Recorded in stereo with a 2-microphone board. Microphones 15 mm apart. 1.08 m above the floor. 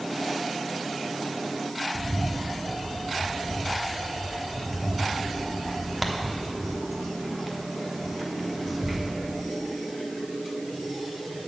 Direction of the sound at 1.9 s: 5° right (ahead or behind).